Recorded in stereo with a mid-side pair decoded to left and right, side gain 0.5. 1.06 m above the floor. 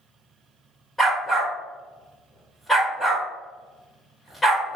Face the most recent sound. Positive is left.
turn(degrees=10)